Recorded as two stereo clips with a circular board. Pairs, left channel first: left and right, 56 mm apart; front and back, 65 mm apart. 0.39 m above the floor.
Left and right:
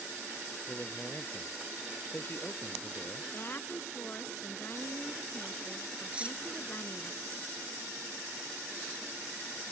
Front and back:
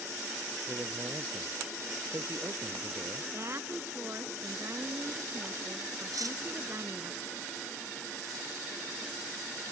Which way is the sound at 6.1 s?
160° right.